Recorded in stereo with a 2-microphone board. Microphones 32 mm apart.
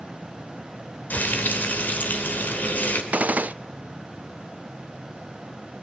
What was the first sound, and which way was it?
Frying, 65° left (ahead or behind).